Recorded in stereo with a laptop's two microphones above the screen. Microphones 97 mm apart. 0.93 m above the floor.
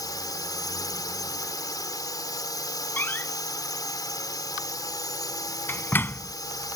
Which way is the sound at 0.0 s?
40° left (ahead or behind).